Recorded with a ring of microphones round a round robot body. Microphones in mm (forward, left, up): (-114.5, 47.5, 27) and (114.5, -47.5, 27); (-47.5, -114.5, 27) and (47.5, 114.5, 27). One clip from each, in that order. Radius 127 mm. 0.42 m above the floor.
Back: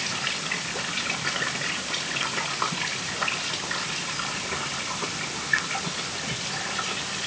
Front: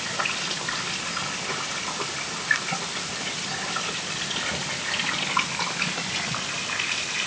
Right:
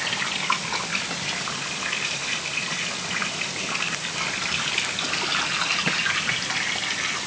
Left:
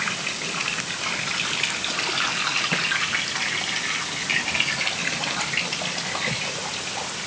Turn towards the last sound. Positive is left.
No sound to turn to.